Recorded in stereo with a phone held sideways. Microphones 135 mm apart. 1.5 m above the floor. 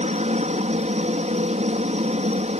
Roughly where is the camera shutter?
I don't hear a camera shutter.